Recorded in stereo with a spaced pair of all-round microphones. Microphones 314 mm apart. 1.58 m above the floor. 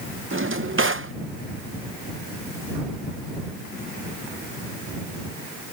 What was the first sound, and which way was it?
A drawer, 40° right (ahead or behind).